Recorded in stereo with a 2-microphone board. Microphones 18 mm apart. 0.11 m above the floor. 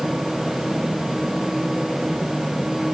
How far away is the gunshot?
I don't hear a gunshot.